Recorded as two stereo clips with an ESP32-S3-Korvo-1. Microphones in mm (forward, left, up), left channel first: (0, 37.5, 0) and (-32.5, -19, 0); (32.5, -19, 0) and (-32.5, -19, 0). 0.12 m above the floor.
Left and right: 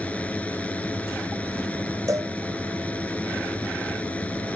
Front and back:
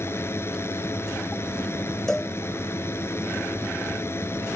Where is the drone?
5° left.